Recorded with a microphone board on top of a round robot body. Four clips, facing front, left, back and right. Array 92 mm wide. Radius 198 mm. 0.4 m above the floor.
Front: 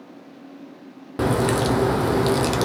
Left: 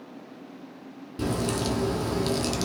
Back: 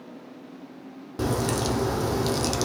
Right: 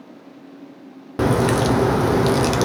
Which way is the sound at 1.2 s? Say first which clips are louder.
Right 10 dB, front 6 dB; 65° right.